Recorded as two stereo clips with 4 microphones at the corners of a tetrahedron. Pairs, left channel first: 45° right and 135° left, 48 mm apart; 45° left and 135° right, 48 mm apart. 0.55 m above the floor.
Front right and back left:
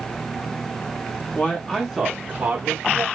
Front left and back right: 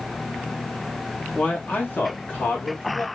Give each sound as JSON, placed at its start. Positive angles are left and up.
{"t": 1.4, "sound": "a man speaking", "azimuth_deg": -5, "distance_m": 1.4}